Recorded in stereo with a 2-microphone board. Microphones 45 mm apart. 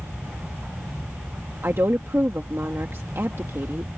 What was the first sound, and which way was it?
A woman speaking, 65° right (ahead or behind).